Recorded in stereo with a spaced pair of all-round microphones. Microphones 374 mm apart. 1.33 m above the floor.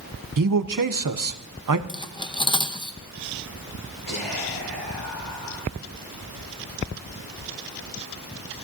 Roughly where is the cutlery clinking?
Centre.